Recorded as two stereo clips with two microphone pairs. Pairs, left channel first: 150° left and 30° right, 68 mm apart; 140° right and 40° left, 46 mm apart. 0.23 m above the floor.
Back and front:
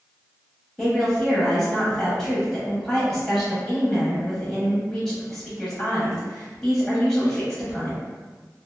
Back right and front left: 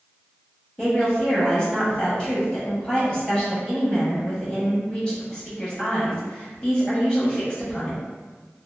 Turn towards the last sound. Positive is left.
turn(degrees=-135)